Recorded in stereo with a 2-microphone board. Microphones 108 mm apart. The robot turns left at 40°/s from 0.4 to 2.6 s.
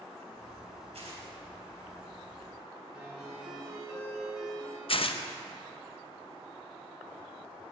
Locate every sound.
0.9 s tearing paper: 70° right (ahead or behind), 3 m; by 1.2 s 55° right (ahead or behind), 3 m
2.9 s a ringtone: 5° right (ahead or behind), 3.5 m
4.9 s tearing paper: 60° left (ahead or behind), 0.6 m